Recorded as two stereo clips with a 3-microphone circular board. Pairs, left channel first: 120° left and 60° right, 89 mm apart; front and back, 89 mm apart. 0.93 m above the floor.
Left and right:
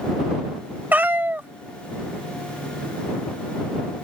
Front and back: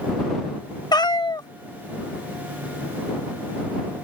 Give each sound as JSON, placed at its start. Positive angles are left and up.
{"t": 0.9, "sound": "a cat meowing", "azimuth_deg": 5}